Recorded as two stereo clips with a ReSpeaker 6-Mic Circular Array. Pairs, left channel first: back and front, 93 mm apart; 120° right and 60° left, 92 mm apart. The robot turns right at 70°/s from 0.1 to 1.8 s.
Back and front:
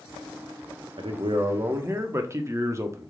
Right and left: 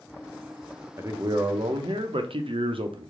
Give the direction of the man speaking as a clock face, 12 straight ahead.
12 o'clock.